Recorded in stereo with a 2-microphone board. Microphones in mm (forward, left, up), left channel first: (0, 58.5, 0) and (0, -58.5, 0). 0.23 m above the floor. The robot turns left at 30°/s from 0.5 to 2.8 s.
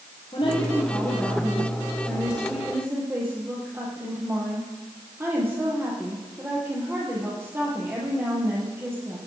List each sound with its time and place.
0.3 s a woman speaking: 45° left, 7.5 m; by 9.2 s 20° right, 7.5 m